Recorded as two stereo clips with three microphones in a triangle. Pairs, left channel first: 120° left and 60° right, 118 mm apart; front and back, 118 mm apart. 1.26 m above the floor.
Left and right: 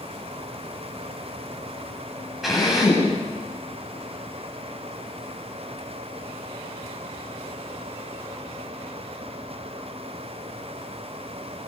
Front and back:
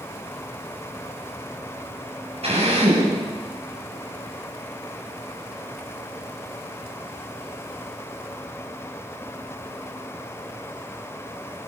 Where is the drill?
150° right, 10 m.